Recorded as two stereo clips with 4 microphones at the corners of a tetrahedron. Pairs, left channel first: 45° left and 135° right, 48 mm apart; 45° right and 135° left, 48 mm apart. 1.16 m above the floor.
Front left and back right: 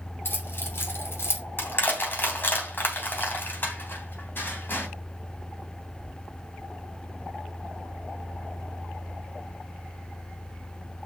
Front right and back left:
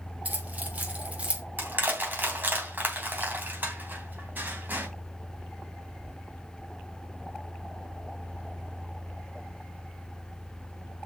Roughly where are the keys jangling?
Left.